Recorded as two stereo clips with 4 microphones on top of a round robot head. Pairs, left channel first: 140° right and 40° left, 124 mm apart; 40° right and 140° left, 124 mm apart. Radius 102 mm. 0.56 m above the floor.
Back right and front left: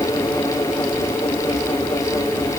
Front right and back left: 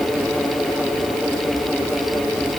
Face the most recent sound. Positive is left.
No sound to turn to.